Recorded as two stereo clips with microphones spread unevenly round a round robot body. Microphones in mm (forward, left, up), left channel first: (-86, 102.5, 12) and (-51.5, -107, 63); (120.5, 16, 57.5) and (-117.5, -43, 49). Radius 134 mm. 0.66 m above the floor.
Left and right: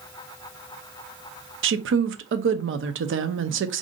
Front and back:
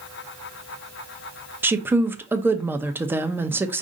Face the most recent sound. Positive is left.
turn(degrees=-90)